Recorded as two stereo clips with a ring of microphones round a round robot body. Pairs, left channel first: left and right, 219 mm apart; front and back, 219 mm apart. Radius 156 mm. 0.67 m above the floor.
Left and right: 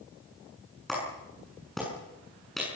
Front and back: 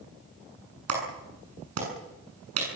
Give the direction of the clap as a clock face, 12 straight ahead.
6 o'clock.